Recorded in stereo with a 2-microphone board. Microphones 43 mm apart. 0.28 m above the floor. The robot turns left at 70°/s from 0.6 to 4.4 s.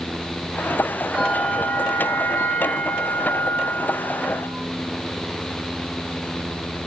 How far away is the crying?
I don't hear crying.